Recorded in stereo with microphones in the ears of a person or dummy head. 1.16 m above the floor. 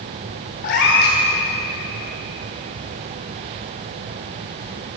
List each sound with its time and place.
0.6 s a cat meowing: 50° left (ahead or behind), 1.2 m